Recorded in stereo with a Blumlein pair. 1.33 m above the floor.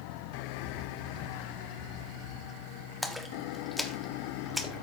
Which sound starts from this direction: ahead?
A splash, at 3.0 s.